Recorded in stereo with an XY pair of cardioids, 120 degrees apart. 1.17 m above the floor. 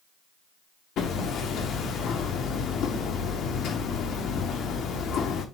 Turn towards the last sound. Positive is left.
turn(degrees=65)